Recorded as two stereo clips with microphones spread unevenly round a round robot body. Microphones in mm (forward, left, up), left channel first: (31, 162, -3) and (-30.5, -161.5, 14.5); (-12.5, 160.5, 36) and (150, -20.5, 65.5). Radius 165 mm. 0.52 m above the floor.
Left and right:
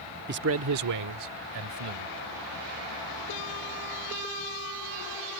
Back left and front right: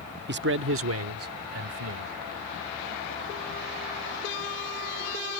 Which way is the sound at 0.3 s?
55° right.